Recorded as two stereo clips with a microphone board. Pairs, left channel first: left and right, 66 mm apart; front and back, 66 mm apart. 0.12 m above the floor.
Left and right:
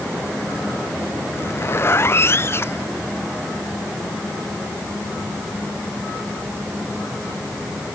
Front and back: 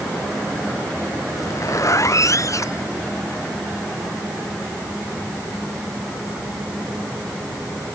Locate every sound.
1.3 s a zipper: 40° left